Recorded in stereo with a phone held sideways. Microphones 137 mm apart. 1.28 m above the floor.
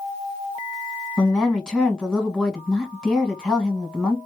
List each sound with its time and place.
1.2 s a woman speaking: 5° left (ahead or behind), 1.2 m